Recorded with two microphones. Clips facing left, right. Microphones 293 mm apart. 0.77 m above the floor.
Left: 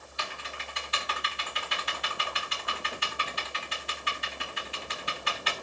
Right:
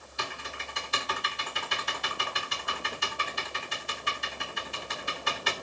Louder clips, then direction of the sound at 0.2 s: Right 2 dB; 55° right (ahead or behind).